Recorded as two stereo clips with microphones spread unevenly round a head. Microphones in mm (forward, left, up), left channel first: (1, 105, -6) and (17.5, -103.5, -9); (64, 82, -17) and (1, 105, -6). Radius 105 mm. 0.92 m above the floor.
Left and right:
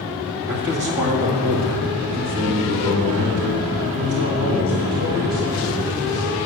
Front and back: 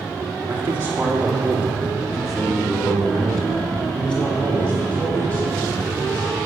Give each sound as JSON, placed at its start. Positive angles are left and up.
{"t": 0.5, "sound": "a man speaking", "azimuth_deg": -130, "distance_m": 2.0}